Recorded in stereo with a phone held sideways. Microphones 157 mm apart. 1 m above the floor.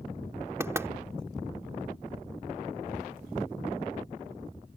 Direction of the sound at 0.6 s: 15° right (ahead or behind).